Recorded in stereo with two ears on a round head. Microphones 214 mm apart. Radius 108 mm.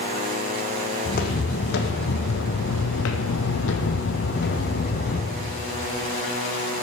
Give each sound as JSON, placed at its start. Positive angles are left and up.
{"t": 1.1, "sound": "footsteps", "side_deg": 40, "distance_m": 1.7}